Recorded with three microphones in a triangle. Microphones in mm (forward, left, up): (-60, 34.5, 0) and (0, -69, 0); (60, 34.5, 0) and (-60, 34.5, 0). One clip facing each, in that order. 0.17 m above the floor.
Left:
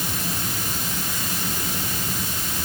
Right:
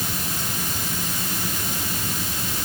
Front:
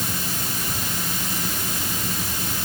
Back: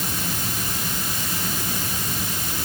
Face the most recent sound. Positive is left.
No sound to turn to.